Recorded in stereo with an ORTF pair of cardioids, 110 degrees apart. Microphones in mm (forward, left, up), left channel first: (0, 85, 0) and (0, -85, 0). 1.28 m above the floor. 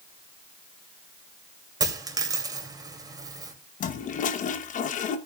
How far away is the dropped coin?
About 2.5 m.